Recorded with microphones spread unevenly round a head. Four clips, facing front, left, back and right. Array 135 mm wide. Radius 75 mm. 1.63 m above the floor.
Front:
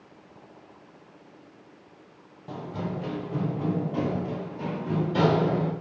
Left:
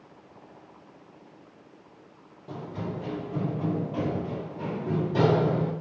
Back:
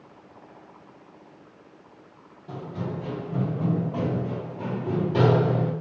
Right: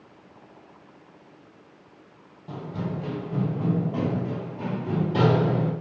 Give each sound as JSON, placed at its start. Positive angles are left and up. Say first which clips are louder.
{"t": 2.5, "sound": "running footsteps", "louder": "right 2 dB, even", "azimuth_deg": 50, "distance_m": 1.9}